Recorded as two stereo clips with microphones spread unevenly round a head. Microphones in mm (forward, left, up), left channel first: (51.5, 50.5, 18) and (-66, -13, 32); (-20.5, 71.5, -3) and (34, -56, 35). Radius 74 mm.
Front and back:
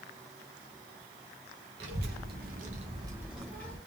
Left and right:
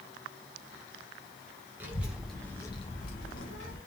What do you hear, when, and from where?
1.8 s a child speaking: 140° right, 1.2 m; by 3.8 s 100° left, 0.8 m